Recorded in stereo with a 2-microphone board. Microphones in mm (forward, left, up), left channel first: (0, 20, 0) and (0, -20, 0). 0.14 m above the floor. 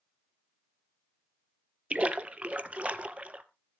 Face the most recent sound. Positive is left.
turn(degrees=-35)  # may be behind; listen again after turning